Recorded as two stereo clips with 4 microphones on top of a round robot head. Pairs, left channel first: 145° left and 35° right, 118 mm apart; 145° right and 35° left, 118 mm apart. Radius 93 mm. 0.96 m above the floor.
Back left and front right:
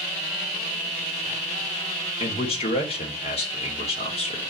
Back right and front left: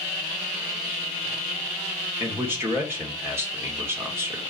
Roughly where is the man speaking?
Left.